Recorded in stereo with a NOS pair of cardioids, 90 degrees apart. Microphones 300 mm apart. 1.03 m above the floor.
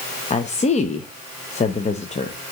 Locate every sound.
0.3 s a woman speaking: 25° left, 0.6 m